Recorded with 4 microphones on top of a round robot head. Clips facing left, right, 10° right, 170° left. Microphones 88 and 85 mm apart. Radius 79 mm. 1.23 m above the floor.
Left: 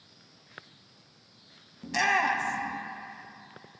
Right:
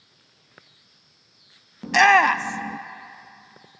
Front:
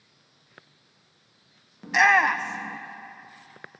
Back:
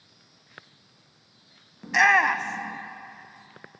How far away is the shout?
About 0.6 m.